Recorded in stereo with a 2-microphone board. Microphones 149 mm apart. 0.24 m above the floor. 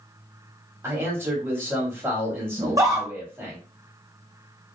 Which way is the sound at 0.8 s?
15° right (ahead or behind).